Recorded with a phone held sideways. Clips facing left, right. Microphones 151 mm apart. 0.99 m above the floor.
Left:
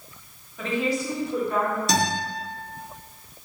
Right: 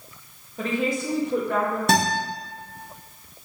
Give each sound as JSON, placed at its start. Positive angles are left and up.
{"t": 0.6, "sound": "a woman speaking", "side_deg": -35, "distance_m": 1.1}
{"t": 1.9, "sound": "a guitar", "side_deg": -55, "distance_m": 1.3}